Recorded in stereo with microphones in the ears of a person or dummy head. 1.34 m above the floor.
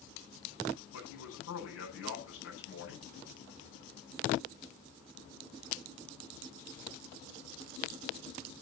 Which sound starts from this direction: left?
A man speaking, at 0.9 s.